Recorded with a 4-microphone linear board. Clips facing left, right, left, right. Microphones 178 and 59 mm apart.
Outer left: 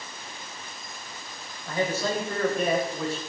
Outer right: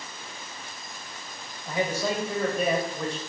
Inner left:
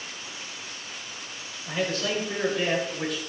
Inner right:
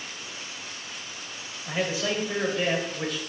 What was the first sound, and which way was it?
A man speaking, 20° right (ahead or behind).